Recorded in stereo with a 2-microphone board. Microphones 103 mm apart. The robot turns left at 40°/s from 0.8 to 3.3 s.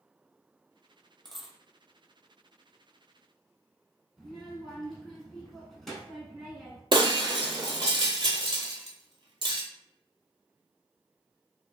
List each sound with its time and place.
1.2 s a dropped coin: 5° left (ahead or behind), 0.7 m; by 1.6 s 5° right (ahead or behind), 0.7 m
4.2 s a child speaking: centre (ahead or behind), 0.8 m
6.9 s breaking glass: 55° right (ahead or behind), 0.8 m